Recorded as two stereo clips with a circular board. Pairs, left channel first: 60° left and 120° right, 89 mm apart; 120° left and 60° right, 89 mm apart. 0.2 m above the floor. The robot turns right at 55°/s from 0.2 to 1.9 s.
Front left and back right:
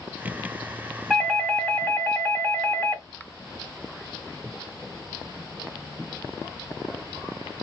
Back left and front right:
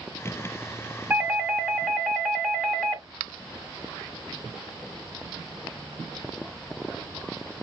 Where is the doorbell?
40° right, 1.9 m; by 3.0 s 5° left, 1.9 m.